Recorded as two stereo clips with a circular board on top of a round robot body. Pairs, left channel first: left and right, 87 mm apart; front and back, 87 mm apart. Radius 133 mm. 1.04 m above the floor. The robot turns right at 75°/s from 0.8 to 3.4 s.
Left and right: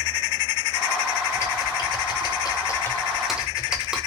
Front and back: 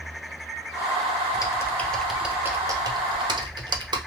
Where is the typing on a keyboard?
35° left, 0.6 m; by 4.0 s 170° right, 0.6 m.